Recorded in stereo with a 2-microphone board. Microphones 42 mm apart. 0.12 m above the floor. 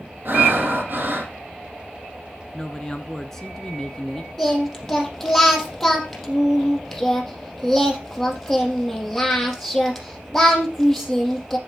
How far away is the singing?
About 4 m.